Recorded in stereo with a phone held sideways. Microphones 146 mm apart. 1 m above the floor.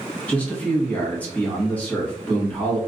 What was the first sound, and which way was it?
A man speaking, 10° left (ahead or behind).